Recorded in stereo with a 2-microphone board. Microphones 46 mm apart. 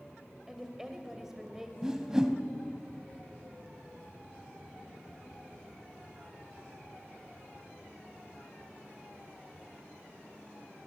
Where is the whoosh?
10° right (ahead or behind), 1.8 m.